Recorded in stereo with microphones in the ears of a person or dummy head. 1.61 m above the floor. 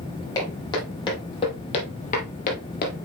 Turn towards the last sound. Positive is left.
turn(degrees=45)  # may be behind; listen again after turning